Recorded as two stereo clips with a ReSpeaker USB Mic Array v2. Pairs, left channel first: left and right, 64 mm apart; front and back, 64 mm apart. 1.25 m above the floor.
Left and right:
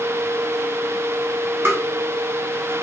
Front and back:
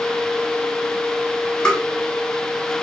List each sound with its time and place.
1.6 s tapping: 70° right, 0.8 m